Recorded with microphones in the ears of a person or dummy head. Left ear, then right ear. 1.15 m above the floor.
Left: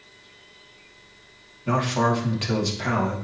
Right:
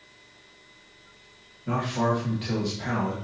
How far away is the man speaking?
About 2 m.